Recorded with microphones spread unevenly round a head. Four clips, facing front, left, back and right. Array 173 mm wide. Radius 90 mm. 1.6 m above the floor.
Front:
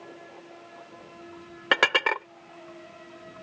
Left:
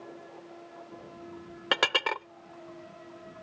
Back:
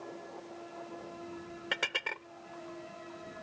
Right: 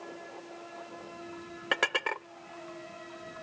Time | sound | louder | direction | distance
1.7 | dishes clattering | left 2 dB, front 15 dB | 5° left | ?